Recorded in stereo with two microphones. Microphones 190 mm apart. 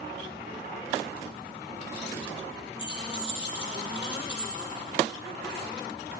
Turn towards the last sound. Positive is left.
turn(degrees=75)  # may be behind; listen again after turning